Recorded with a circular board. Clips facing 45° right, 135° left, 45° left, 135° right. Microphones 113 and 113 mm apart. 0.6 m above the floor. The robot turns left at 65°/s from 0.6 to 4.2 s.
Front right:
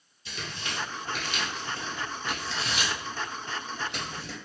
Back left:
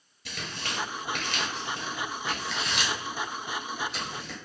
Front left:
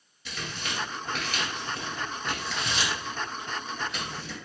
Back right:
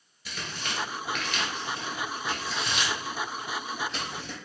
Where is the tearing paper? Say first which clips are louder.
Back left 1 dB, even; 140° left, 1.8 m; by 4.4 s 95° right, 1.8 m.